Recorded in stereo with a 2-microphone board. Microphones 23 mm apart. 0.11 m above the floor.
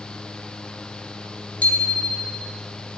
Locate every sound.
1.6 s a bicycle bell: 70° left (ahead or behind), 3 m